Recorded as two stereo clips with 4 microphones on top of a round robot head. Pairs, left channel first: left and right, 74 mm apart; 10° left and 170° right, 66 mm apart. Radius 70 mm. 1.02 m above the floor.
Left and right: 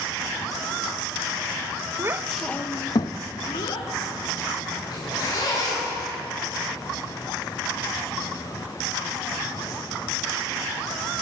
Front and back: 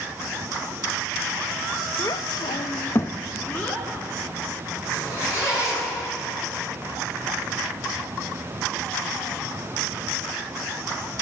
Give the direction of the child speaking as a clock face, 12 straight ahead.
1 o'clock.